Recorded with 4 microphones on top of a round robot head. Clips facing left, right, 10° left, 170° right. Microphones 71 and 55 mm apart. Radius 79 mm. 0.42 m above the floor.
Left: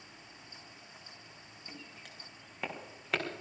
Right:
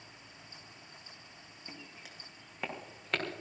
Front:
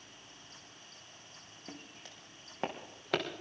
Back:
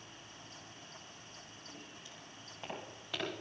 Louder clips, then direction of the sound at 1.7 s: Even, front 5 dB; 10° right.